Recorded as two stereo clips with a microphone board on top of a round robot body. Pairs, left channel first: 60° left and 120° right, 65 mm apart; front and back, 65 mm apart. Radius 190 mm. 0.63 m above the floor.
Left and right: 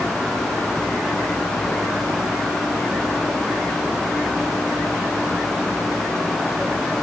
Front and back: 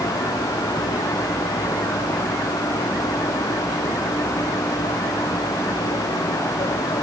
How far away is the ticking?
No ticking in this recording.